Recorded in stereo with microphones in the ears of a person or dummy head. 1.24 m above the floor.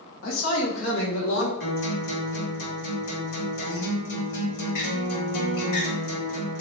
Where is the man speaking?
75° left (ahead or behind), 1.4 m; by 1.5 s 80° left, 1.9 m.